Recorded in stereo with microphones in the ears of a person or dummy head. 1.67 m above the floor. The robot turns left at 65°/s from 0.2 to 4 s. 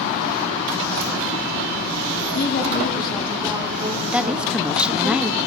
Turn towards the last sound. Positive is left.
turn(degrees=-5)  # may be behind; listen again after turning